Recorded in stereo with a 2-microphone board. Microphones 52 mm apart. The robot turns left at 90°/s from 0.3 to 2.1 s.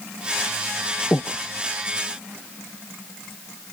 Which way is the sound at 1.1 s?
40° left (ahead or behind).